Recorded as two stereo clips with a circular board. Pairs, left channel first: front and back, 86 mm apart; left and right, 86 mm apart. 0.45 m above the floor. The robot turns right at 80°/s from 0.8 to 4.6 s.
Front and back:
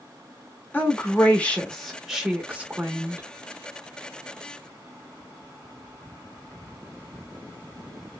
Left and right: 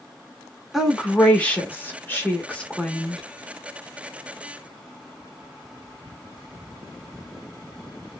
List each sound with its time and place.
0.7 s a woman speaking: 10° right, 0.7 m; by 3.2 s 175° right, 0.7 m